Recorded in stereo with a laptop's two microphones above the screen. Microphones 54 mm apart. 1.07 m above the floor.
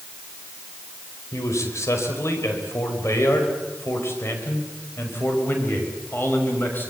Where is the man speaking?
70° left (ahead or behind), 5 m; by 6.9 s 40° left (ahead or behind), 6.5 m.